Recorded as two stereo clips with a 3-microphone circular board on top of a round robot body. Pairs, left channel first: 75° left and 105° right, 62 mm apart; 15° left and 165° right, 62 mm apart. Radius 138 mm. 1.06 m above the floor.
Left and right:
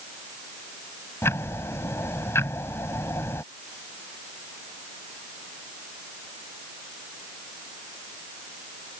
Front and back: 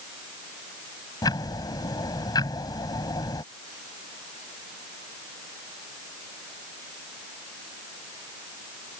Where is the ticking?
25° left.